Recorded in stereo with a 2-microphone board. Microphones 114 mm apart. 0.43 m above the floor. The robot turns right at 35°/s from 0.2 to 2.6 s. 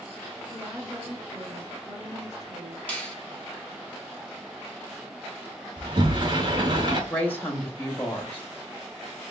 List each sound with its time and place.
0.5 s a woman speaking: straight behind, 1.2 m; by 2.8 s 105° right, 1.2 m
2.9 s a finger snap: 10° left (ahead or behind), 1.5 m
5.8 s a sliding door: 40° right (ahead or behind), 1.0 m
7.1 s a woman speaking: 15° left (ahead or behind), 1.5 m